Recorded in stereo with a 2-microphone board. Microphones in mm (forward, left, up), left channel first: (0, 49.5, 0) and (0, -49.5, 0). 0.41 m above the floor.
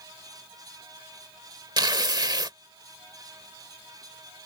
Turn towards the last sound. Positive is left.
turn(degrees=-45)  # may be behind; listen again after turning